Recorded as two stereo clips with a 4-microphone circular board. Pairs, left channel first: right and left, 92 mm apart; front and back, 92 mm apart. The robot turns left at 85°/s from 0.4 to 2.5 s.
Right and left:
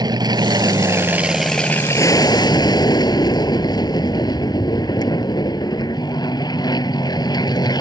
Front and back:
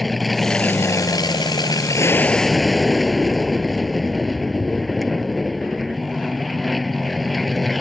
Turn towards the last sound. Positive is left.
turn(degrees=-90)